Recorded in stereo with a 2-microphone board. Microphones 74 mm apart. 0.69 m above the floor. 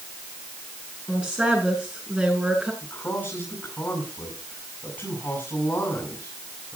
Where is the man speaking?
25° left (ahead or behind), 7.5 m.